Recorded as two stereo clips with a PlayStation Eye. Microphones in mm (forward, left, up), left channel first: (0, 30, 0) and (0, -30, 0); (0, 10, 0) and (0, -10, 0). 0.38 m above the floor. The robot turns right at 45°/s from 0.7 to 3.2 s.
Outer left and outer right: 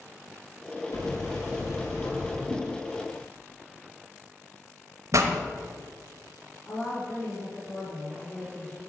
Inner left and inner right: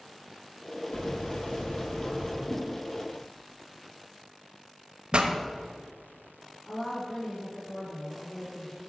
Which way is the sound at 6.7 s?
30° left (ahead or behind).